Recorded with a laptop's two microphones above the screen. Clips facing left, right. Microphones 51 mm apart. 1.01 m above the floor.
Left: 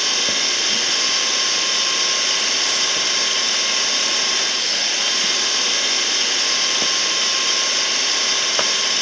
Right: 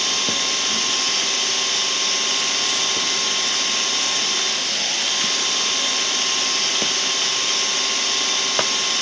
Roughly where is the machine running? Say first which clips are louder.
Left 1 dB; left.